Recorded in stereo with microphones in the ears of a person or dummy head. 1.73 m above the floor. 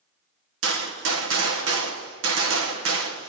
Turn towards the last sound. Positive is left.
turn(degrees=-85)